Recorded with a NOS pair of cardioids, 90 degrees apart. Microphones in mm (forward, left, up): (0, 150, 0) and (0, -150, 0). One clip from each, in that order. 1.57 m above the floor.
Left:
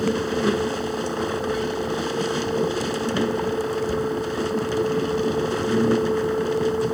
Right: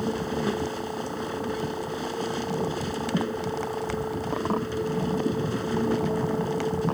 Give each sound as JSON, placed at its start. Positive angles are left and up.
{"t": 0.0, "sound": "a machine running", "azimuth_deg": 45}